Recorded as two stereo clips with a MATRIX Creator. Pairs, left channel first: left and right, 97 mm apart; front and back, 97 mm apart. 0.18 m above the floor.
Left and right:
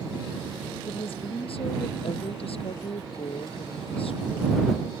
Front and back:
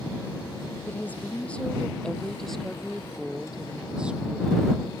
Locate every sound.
0.9 s a woman speaking: 75° left; by 4.9 s 110° left